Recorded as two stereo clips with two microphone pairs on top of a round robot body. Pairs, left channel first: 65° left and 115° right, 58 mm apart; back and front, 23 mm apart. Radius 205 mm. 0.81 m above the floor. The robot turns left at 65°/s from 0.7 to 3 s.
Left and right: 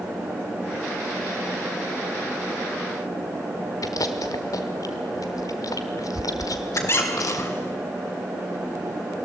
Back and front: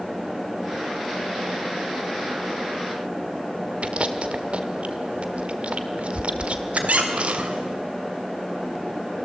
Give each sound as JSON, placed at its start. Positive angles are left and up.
{"t": 3.8, "sound": "chewing", "azimuth_deg": 35, "distance_m": 1.0}
{"t": 6.8, "sound": "a squeak", "azimuth_deg": 15, "distance_m": 2.5}